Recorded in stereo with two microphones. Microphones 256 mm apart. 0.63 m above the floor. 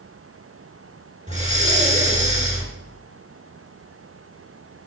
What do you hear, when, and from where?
1.3 s breathing: 30° right (ahead or behind), 2 m